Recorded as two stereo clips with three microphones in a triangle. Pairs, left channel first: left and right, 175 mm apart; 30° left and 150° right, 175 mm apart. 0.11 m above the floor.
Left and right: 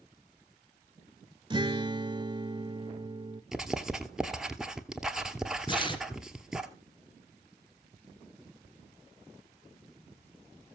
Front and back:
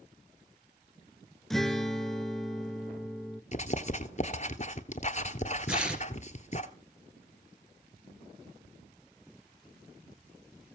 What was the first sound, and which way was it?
A guitar, 55° right.